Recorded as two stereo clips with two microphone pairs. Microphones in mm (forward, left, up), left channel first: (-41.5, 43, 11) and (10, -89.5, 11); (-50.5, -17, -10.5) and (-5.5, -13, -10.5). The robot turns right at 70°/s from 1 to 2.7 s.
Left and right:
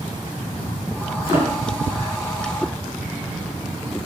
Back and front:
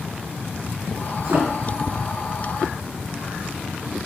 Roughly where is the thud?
Ahead.